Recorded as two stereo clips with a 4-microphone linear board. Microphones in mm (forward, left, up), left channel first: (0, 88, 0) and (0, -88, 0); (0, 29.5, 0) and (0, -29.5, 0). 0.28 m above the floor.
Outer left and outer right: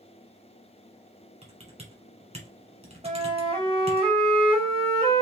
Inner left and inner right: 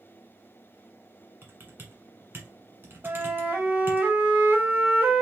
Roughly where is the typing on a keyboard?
Right.